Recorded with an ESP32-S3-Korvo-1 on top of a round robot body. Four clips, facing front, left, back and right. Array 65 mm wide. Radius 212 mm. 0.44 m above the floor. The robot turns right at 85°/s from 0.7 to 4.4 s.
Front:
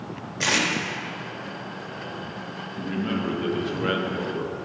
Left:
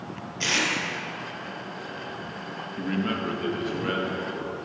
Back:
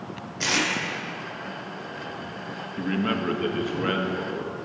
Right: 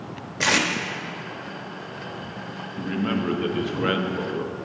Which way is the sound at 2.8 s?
170° left.